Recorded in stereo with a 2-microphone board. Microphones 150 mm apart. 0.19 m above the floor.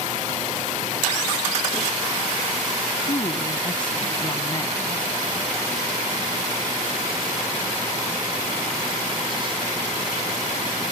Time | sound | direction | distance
3.0 | a woman speaking | 35° left (ahead or behind) | ?